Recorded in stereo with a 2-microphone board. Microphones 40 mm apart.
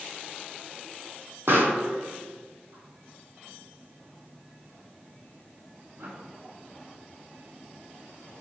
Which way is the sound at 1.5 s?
75° right (ahead or behind).